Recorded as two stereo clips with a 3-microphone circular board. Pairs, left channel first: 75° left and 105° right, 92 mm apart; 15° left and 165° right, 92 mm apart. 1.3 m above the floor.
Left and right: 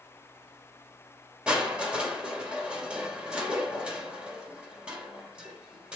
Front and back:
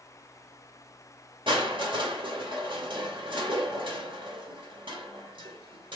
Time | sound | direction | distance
1.5 | crushing | 175° left | 2.5 m